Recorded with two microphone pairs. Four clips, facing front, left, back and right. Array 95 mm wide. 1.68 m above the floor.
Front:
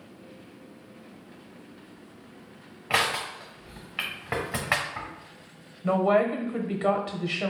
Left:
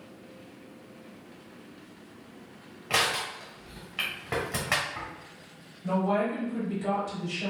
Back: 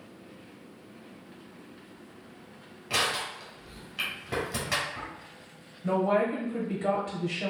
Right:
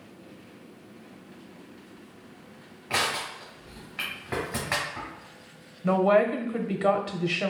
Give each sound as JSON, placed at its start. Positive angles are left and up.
{"t": 2.9, "sound": "crushing", "azimuth_deg": 5, "distance_m": 1.3}
{"t": 5.8, "sound": "a woman speaking", "azimuth_deg": -50, "distance_m": 0.9}